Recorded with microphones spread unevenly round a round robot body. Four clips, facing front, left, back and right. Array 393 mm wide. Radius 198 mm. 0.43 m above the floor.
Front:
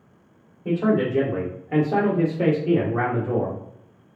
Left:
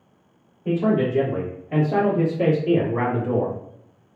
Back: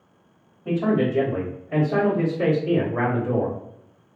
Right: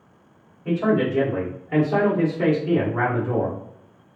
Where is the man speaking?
25° right, 1.7 m; by 3.6 s 55° left, 1.7 m.